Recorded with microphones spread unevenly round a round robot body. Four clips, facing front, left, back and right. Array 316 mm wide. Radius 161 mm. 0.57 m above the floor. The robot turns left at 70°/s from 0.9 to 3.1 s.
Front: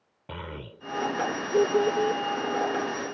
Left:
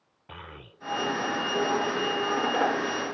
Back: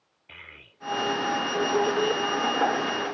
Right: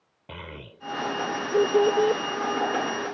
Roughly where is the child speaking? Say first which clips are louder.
Right 4 dB, front 12 dB; ahead.